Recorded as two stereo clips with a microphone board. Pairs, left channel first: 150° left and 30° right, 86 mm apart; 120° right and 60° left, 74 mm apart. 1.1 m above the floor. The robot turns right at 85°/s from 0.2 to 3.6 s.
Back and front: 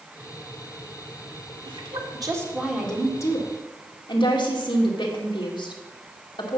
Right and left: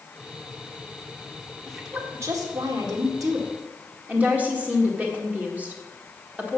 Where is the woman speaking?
35° right, 2 m; by 6.6 s 130° left, 2 m.